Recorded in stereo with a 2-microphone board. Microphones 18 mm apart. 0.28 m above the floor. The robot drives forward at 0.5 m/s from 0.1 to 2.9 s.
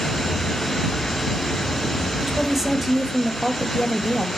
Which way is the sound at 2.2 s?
10° right (ahead or behind).